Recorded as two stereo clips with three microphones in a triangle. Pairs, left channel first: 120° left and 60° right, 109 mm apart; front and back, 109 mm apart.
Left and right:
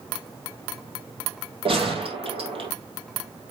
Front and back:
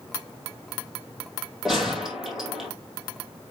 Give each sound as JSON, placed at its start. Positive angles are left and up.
{"t": 1.6, "sound": "a gunshot", "azimuth_deg": -95, "distance_m": 3.0}